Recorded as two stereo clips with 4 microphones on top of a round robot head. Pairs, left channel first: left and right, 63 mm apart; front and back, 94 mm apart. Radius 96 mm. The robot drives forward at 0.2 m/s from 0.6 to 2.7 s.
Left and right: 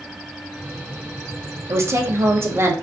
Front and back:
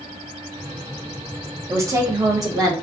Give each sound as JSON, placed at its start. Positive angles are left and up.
{"t": 1.7, "sound": "a woman speaking", "azimuth_deg": -125, "distance_m": 0.8}